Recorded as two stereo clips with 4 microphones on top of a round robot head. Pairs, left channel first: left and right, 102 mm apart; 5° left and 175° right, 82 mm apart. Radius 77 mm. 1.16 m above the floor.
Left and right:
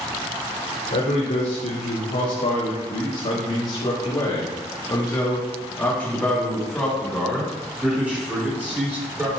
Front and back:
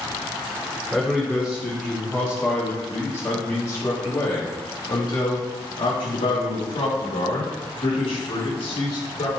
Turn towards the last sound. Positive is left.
turn(degrees=-20)